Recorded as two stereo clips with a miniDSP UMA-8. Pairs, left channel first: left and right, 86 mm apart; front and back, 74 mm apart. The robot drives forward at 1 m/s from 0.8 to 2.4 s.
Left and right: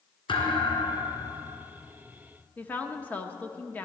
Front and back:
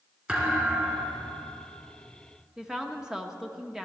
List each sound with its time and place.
0.3 s a thud: 105° left, 2 m; by 1.5 s 120° left, 2.5 m
2.6 s a woman speaking: 115° left, 0.8 m